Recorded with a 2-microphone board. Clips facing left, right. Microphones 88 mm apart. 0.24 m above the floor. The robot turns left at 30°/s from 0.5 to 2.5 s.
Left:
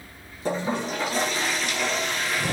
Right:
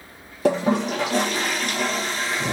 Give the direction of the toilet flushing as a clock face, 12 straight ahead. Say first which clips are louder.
Right 6 dB; 3 o'clock.